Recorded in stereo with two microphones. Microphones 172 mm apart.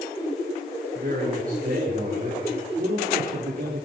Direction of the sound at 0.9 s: 55° right (ahead or behind).